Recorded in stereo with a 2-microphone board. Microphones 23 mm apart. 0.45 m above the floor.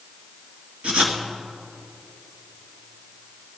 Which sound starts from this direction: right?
Writing, at 0.8 s.